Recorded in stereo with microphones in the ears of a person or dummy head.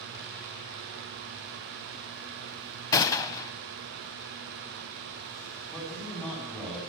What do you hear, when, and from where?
2.9 s a gunshot: 20° left (ahead or behind), 1.7 m
5.7 s a man speaking: 10° left (ahead or behind), 9.5 m